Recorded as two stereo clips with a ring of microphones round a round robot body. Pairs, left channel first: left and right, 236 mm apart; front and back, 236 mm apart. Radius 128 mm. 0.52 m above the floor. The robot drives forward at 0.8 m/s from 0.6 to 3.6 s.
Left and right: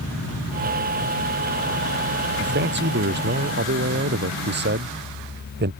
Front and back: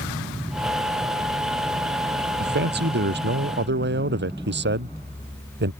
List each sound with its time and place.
2.4 s a man speaking: 135° right